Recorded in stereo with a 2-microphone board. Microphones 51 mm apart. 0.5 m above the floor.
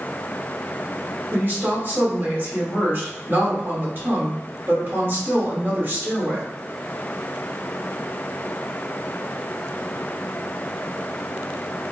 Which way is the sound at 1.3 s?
45° right (ahead or behind).